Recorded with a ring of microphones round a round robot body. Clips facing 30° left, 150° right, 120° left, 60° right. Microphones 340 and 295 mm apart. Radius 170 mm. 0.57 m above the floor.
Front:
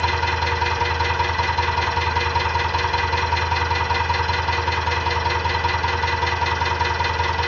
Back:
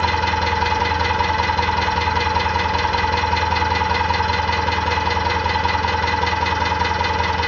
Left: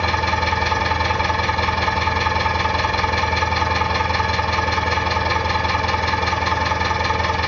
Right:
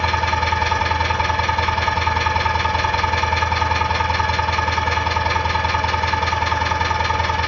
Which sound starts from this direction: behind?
An engine running, at 0.0 s.